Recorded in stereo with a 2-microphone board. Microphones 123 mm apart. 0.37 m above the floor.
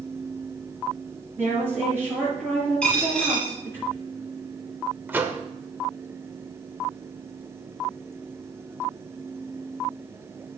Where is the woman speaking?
15° right (ahead or behind), 5 m.